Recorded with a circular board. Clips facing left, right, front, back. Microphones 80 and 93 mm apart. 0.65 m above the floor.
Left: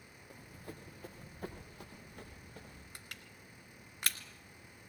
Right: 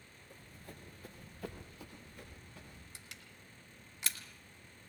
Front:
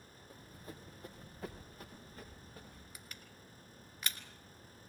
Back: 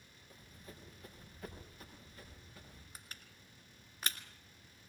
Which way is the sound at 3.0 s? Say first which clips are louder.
Left 2 dB, front 2 dB; 125° left.